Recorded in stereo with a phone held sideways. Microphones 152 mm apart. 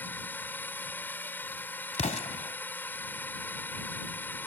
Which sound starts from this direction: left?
An explosion, at 1.9 s.